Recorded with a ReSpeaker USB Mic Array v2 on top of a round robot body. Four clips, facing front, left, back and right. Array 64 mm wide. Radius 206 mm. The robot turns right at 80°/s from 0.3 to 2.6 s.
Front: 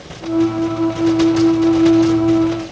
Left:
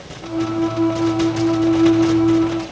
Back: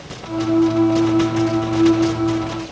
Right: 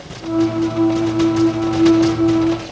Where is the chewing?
No chewing in this recording.